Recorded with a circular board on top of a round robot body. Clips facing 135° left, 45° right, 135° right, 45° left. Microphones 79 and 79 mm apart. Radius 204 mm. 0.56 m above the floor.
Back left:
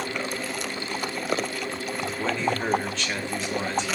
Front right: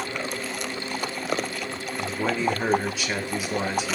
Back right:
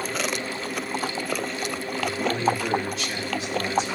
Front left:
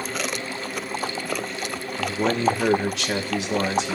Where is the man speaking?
35° left, 3 m.